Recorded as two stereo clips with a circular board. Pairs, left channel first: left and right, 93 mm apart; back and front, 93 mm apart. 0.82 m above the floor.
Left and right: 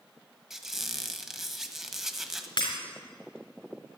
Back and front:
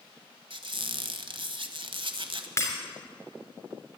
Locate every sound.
0.5 s a squeak: 5° right, 1.1 m
2.6 s breaking glass: 125° left, 3 m